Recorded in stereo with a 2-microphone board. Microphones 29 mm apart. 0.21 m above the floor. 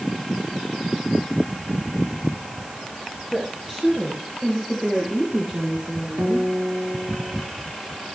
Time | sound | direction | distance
3.3 | a woman speaking | 20° right (ahead or behind) | 4 m
6.2 | a guitar | 65° right (ahead or behind) | 3 m